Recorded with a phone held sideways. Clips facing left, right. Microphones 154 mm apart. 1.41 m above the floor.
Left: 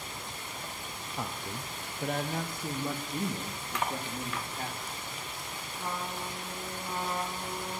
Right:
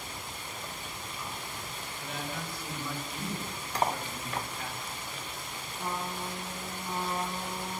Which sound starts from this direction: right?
Cutlery clinking, at 3.8 s.